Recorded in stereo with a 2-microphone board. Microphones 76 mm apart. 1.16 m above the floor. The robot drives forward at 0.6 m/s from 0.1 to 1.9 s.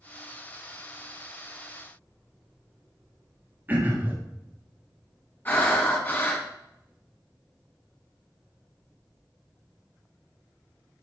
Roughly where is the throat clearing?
Right.